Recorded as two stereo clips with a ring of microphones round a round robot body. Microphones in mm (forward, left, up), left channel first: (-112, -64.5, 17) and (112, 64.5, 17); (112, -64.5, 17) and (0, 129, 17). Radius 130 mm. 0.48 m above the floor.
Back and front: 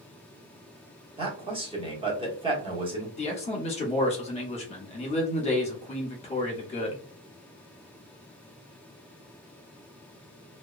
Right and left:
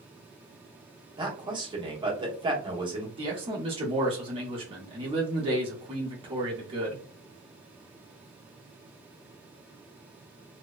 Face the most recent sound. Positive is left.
turn(degrees=165)